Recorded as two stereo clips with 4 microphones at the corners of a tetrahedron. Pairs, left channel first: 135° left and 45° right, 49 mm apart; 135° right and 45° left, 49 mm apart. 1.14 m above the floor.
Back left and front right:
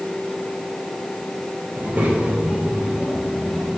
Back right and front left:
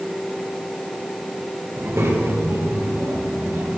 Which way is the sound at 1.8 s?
10° left.